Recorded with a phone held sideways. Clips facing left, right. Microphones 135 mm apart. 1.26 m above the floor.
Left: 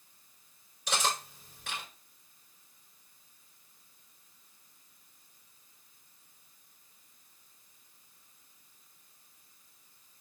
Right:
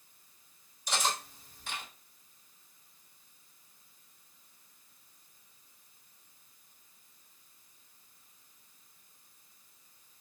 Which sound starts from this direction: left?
Cutlery clinking, at 0.9 s.